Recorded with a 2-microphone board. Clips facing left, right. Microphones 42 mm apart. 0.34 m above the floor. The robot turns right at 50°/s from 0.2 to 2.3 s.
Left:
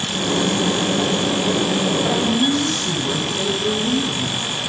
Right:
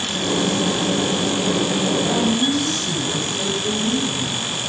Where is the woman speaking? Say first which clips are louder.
Left 1 dB; 20° left (ahead or behind), 1.2 m; by 4.5 s 30° left (ahead or behind), 1.2 m.